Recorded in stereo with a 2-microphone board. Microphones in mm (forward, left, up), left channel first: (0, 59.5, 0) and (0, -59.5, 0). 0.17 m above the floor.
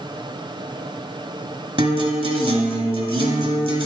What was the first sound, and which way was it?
A guitar, 60° right (ahead or behind).